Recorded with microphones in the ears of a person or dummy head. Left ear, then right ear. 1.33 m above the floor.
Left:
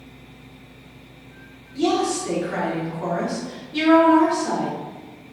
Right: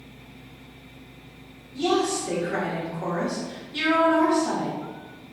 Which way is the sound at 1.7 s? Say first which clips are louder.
Left 2 dB; 25° left (ahead or behind).